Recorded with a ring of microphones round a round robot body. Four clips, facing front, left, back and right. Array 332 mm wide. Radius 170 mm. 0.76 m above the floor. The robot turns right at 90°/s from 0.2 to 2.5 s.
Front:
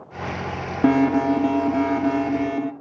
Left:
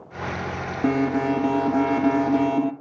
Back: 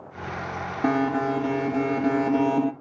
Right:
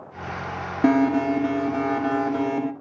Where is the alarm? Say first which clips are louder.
Right 3 dB, front 6 dB; 10° right, 1.6 m; by 2.7 s 135° left, 1.6 m.